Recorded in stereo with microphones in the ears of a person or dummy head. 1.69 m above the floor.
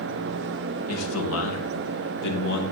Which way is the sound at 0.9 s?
85° left.